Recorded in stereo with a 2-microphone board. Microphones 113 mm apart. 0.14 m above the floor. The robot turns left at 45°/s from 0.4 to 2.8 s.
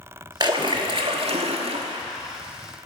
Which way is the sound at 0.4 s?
45° right.